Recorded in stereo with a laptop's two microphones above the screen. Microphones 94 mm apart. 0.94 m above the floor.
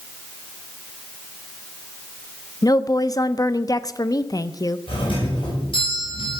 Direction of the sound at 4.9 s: 65° left (ahead or behind).